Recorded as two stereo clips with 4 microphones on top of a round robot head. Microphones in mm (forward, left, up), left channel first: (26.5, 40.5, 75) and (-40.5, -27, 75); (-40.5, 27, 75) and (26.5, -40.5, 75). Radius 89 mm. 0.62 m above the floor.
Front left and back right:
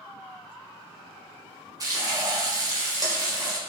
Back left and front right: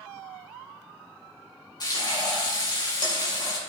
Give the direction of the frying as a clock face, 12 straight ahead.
6 o'clock.